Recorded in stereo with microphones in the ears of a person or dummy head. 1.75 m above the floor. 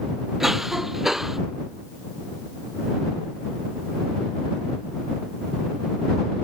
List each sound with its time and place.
0.4 s a cough: centre (ahead or behind)